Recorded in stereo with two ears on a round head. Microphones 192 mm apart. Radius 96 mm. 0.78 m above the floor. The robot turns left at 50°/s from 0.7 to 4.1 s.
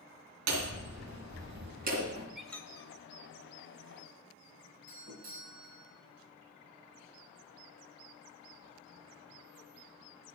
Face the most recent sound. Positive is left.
turn(degrees=-45)  # may be behind; listen again after turning